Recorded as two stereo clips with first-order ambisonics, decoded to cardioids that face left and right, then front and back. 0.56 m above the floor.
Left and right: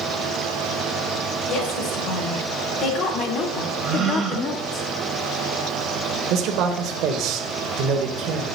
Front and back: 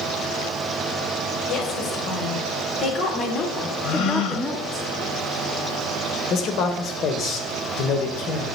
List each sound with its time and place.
1.5 s a woman speaking: 45° left, 3 m; by 4.8 s 135° left, 1.1 m
3.8 s a gasp: 20° right, 2 m
6.3 s a man speaking: 50° right, 1.7 m